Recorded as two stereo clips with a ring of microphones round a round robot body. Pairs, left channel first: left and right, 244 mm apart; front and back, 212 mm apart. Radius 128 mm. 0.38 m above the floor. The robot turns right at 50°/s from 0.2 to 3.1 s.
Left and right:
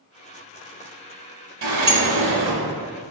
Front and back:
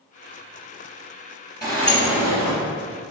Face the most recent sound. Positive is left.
turn(degrees=-20)